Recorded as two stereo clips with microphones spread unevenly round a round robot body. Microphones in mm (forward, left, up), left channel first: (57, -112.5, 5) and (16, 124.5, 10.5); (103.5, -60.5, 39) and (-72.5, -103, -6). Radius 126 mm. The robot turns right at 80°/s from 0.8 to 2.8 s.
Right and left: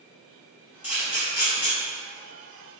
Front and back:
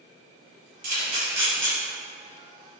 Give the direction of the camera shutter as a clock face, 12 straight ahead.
5 o'clock.